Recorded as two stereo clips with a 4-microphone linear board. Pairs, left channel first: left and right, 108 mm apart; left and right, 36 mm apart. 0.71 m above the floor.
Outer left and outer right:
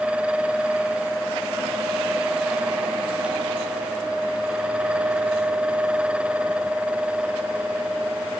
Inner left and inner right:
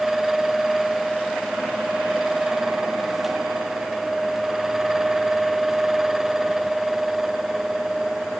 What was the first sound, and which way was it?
Only background noise.